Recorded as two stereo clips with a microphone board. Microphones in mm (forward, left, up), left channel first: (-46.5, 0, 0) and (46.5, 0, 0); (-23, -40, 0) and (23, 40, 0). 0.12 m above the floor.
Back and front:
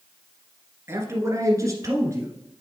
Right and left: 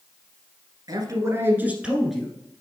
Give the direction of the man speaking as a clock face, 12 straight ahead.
10 o'clock.